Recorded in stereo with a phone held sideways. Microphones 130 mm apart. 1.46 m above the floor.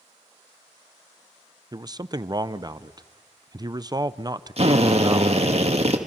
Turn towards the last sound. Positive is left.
turn(degrees=-55)  # may be behind; listen again after turning